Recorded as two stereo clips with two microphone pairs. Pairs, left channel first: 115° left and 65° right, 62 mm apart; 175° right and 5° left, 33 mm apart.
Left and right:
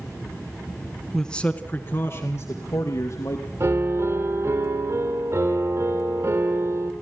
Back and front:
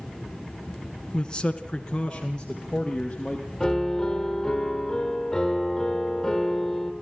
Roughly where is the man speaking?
Behind.